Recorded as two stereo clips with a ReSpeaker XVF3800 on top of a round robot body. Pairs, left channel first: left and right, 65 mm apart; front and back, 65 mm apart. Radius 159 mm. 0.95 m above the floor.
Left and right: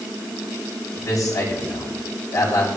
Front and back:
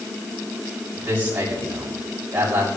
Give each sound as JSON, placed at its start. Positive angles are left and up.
{"t": 0.9, "sound": "a man speaking", "azimuth_deg": 115, "distance_m": 7.0}